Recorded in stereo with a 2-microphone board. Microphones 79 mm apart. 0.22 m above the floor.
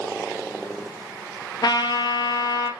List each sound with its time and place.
1.6 s a trumpet: 55° left (ahead or behind), 2.5 m